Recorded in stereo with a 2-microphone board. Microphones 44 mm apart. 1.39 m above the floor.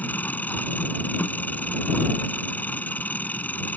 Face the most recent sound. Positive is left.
turn(degrees=40)  # may be behind; listen again after turning